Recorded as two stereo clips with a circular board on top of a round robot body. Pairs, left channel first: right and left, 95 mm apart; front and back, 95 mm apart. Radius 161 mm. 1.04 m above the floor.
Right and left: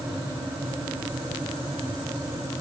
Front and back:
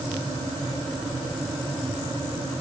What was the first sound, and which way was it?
Only background noise.